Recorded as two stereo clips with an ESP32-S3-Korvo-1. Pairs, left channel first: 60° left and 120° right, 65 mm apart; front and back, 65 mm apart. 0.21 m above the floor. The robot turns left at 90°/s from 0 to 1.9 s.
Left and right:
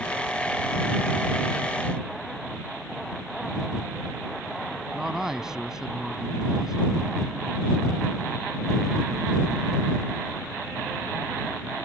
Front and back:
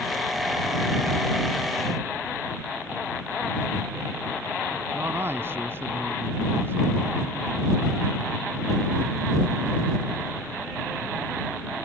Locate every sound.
4.9 s a man speaking: 165° left